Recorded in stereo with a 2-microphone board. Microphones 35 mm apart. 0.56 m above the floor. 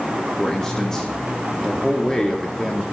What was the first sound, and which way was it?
A man speaking, 15° left (ahead or behind).